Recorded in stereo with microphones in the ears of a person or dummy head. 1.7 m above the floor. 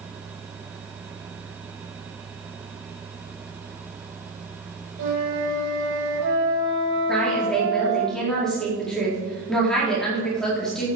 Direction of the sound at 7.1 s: Centre (ahead or behind).